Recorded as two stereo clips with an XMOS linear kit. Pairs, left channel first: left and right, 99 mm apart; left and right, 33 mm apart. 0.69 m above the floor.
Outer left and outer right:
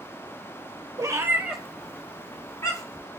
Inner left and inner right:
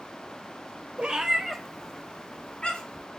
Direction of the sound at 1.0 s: 40° right (ahead or behind).